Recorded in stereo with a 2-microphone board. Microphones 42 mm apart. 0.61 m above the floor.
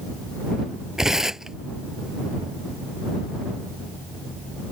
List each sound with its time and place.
1.0 s tearing paper: 10° right (ahead or behind)